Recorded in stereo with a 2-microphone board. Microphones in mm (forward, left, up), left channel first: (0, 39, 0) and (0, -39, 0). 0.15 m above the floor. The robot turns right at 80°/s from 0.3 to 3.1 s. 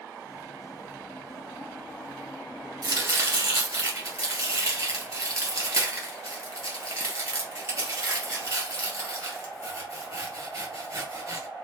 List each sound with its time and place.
2.8 s chopping: 60° right (ahead or behind), 2.5 m; by 11.5 s 40° right (ahead or behind), 2.5 m